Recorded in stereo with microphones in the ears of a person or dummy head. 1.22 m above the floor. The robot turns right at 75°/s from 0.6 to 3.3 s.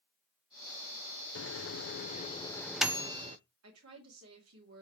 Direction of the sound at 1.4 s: 55° left (ahead or behind).